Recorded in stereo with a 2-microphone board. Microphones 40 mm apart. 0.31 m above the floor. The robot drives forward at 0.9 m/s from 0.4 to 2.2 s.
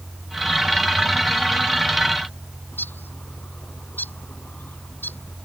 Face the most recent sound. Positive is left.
turn(degrees=55)  # may be behind; listen again after turning